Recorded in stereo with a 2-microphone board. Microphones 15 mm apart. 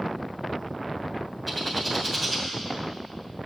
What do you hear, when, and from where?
1.5 s a bird: 5° right (ahead or behind), 2.5 m